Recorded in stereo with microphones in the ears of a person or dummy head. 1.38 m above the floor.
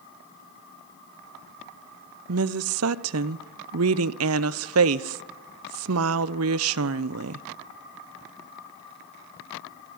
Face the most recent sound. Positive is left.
turn(degrees=-70)  # may be behind; listen again after turning